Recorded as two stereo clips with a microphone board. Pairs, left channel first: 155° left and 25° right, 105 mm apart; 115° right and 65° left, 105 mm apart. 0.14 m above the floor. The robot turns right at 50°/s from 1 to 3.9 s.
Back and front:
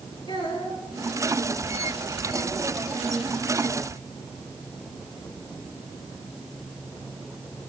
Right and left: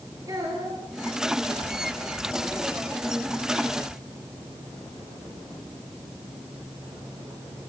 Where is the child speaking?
120° left, 6 m.